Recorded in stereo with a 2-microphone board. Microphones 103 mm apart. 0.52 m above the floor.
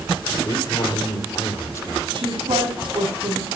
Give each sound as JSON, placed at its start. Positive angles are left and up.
{"t": 0.5, "sound": "a man speaking", "side_deg": 50, "distance_m": 2.0}
{"t": 2.1, "sound": "a woman speaking", "side_deg": -55, "distance_m": 5.5}